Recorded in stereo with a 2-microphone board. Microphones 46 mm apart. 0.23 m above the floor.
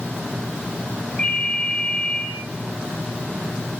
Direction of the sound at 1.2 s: 20° left (ahead or behind).